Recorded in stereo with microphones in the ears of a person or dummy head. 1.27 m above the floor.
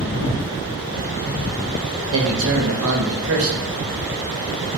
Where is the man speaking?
75° right (ahead or behind), 1.0 m.